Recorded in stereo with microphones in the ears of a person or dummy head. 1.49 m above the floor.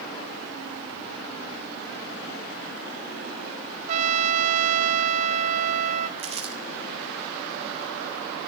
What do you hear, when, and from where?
3.9 s a trumpet: 40° right (ahead or behind), 0.9 m
6.2 s crumpling: 30° right (ahead or behind), 1.7 m